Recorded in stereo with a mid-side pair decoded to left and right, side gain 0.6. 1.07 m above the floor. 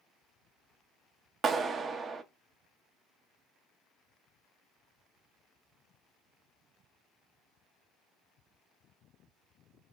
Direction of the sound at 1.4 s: 35° right.